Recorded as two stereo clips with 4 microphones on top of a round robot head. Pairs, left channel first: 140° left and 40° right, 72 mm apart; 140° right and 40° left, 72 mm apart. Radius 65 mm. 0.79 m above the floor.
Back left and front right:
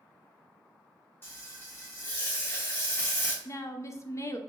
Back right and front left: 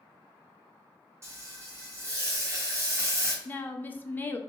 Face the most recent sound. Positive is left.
turn(degrees=165)